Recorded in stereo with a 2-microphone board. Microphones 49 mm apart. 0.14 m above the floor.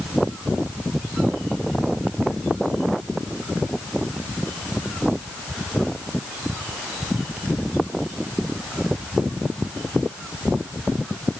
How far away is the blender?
No blender in this recording.